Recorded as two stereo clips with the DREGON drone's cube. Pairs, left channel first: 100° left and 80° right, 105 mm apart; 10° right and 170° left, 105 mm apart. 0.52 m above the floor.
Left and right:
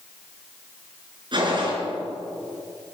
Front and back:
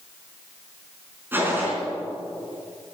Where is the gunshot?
120° right, 4.5 m.